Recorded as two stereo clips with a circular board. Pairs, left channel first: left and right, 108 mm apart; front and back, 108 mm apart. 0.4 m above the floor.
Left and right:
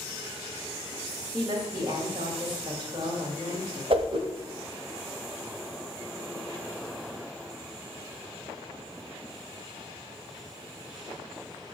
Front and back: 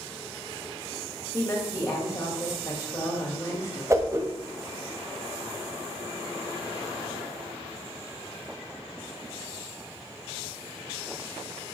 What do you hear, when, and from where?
1.3 s a woman speaking: 55° right, 2 m
3.9 s a whoosh: 120° right, 1.0 m